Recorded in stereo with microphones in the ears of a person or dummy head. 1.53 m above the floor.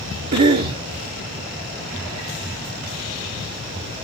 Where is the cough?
50° right (ahead or behind), 0.7 m.